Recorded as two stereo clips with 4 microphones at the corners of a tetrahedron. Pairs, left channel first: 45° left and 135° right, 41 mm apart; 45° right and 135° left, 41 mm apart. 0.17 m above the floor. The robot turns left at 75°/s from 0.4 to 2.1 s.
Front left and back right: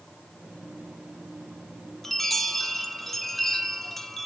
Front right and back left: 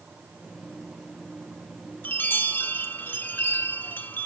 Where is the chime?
35° right, 0.8 m; by 4.3 s 40° right, 0.8 m.